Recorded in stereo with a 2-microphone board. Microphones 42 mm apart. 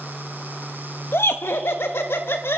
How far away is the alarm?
No alarm in this recording.